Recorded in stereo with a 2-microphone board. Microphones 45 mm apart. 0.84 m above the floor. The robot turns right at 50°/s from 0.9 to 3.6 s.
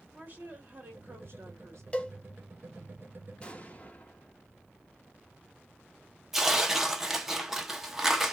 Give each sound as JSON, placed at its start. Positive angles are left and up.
{"t": 0.1, "sound": "a woman speaking", "azimuth_deg": -140, "distance_m": 2.0}
{"t": 1.9, "sound": "a cowbell", "side_deg": 25, "distance_m": 0.8}
{"t": 3.4, "sound": "an explosion", "side_deg": 20, "distance_m": 0.9}
{"t": 6.3, "sound": "tearing paper", "side_deg": -10, "distance_m": 0.7}